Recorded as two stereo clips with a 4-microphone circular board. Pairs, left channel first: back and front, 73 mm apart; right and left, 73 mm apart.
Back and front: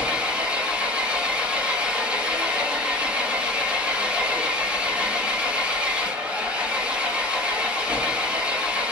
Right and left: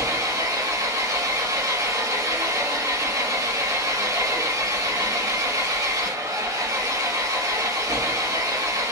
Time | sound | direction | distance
0.0 | an engine running | 70° left | 1.3 m